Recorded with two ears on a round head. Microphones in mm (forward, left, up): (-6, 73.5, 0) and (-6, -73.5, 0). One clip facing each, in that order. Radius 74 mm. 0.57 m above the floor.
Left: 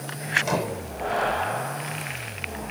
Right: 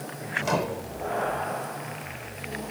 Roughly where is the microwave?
Centre.